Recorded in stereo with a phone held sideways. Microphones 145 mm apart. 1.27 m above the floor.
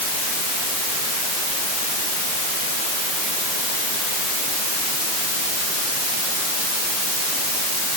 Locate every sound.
Only background noise.